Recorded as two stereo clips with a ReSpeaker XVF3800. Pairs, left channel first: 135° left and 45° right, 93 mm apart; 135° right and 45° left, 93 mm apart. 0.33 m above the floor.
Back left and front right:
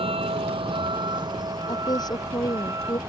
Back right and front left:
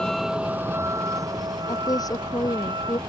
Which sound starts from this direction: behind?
A woman speaking, at 1.7 s.